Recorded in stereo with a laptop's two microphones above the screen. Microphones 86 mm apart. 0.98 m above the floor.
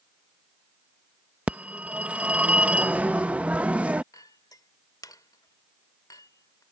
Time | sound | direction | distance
1.5 | a phone ringing | 15° right (ahead or behind) | ?
4.1 | a clink | 45° left (ahead or behind) | ?